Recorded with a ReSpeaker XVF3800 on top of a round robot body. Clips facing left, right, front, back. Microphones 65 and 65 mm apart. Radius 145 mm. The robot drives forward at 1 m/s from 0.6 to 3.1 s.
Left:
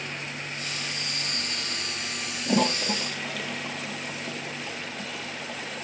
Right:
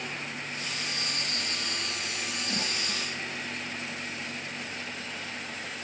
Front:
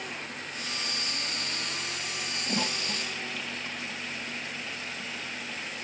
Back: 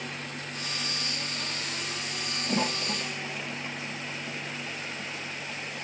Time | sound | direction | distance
2.5 | a toilet flushing | 105° left | ?